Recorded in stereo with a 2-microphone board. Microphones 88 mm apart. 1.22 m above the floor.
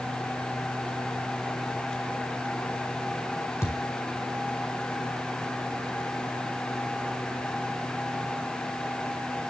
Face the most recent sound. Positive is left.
turn(degrees=30)  # may be behind; listen again after turning